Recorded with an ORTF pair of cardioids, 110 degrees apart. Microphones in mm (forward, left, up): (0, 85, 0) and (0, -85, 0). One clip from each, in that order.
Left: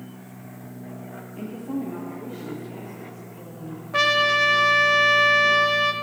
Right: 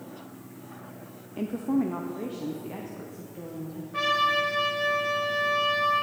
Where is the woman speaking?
25° right, 0.7 m; by 3.8 s 50° right, 2 m.